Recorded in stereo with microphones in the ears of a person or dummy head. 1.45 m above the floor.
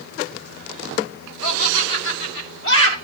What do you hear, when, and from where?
1.4 s laughter: 75° left (ahead or behind), 6.5 m; by 3.0 s 85° left, 6.5 m